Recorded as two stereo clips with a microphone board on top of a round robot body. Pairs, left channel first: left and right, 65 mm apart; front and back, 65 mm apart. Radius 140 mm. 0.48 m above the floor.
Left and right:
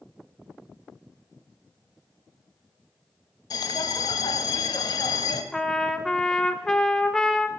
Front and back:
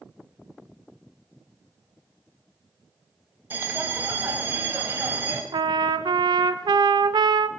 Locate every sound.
3.5 s a bell: 115° left, 0.8 m
5.5 s a trumpet: 170° left, 0.5 m